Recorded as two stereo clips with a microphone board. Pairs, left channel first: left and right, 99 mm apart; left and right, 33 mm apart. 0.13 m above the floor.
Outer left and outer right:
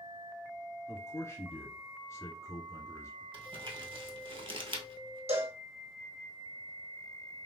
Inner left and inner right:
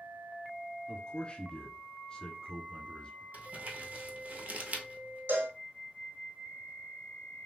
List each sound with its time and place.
0.9 s a man speaking: 30° left (ahead or behind), 1.2 m
3.3 s crumpling: 55° right (ahead or behind), 0.9 m
5.3 s a cowbell: 75° right (ahead or behind), 1.4 m